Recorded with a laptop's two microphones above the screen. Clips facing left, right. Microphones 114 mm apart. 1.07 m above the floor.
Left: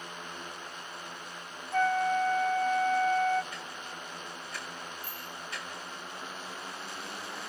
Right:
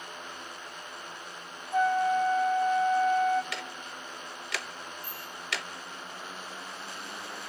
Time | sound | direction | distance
1.7 | a flute | 15° right (ahead or behind) | 0.7 m
3.5 | ticking | 85° right | 0.7 m
5.0 | a bicycle bell | 45° right (ahead or behind) | 9.5 m